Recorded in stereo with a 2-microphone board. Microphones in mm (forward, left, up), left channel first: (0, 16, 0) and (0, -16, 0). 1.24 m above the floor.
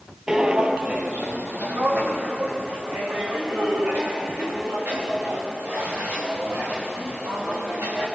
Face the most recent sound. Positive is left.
turn(degrees=-80)